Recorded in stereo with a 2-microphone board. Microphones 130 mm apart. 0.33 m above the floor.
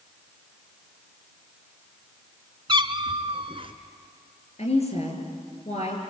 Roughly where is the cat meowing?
Right.